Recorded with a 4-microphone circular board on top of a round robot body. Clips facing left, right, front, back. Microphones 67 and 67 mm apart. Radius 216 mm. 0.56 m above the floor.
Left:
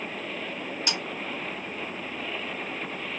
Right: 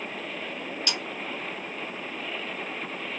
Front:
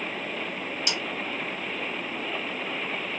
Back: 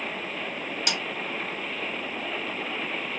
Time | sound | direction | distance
0.9 | a snare drum | 155° left | 2.5 m